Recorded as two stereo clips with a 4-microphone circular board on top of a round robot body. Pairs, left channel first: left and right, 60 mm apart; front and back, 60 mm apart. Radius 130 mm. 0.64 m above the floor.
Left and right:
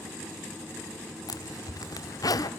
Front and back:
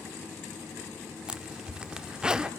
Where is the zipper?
105° left, 1.3 m.